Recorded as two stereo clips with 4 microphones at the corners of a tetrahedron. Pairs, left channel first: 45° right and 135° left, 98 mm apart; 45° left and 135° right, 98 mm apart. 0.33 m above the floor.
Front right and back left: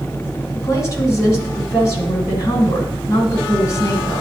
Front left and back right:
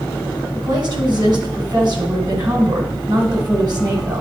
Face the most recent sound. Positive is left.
turn(degrees=-100)